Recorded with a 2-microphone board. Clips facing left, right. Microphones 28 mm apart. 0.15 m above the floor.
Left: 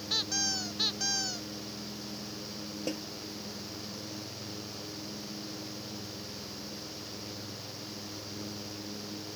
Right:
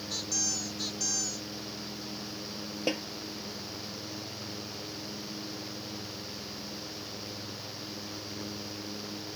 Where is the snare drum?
40° right (ahead or behind).